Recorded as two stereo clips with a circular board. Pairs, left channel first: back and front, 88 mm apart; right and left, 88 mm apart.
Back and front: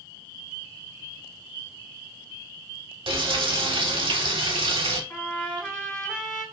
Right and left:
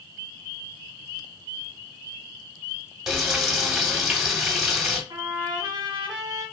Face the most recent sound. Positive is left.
turn(degrees=105)